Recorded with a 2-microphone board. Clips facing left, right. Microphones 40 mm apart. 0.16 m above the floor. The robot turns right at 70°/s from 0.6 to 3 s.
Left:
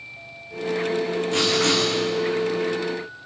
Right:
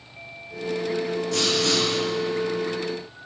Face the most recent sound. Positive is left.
turn(degrees=150)